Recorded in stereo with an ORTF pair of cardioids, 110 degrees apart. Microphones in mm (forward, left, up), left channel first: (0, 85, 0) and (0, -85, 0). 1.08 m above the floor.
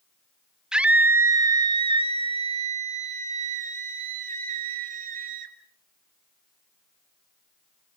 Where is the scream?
5° right, 1.2 m; by 5.5 s 55° right, 3.5 m.